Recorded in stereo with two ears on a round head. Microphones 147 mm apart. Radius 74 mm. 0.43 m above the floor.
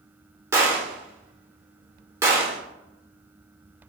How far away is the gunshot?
About 0.8 m.